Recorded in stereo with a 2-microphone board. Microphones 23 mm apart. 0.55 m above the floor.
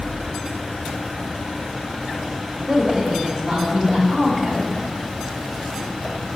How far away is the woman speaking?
About 3 m.